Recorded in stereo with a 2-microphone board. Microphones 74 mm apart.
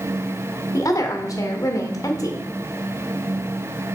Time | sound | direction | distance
0.7 | a woman speaking | 50° left (ahead or behind) | 1.3 m